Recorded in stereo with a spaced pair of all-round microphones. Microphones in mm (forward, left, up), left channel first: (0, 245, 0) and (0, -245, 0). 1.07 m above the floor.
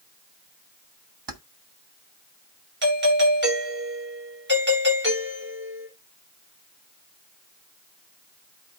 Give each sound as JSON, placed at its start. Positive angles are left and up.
{"t": 1.3, "sound": "keys jangling", "side_deg": -55, "distance_m": 1.5}
{"t": 2.8, "sound": "a doorbell", "side_deg": -20, "distance_m": 7.5}